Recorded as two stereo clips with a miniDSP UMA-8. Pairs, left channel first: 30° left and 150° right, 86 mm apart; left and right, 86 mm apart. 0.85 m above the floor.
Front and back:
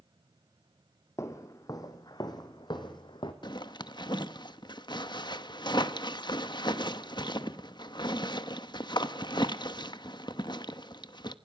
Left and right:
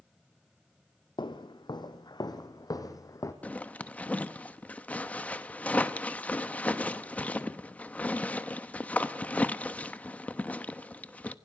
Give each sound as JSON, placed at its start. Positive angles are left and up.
{"t": 1.2, "sound": "footsteps", "azimuth_deg": 80, "distance_m": 1.9}
{"t": 3.4, "sound": "a zipper", "azimuth_deg": 20, "distance_m": 0.9}